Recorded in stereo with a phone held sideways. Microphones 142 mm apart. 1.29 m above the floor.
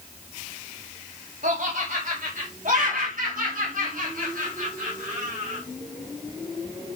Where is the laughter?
80° right, 2.5 m; by 5.6 s 70° right (ahead or behind), 4 m.